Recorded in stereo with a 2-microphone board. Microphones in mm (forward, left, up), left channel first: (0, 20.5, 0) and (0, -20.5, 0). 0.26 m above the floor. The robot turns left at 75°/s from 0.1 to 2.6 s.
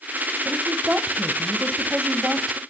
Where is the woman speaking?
20° right, 1.2 m; by 2.6 s straight behind, 1.2 m.